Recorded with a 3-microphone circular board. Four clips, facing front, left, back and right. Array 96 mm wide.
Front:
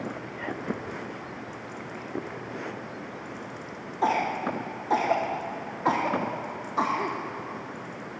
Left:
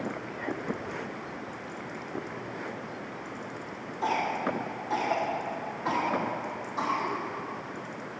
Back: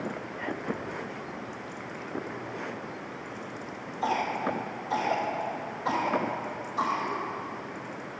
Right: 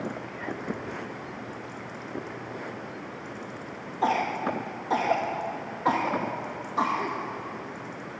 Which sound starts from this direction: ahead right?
A cough, at 4.0 s.